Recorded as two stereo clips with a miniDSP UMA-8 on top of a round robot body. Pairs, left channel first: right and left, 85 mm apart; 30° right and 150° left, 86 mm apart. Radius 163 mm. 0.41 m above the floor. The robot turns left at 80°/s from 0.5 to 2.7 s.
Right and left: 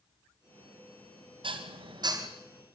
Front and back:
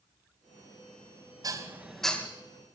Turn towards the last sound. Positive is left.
turn(degrees=5)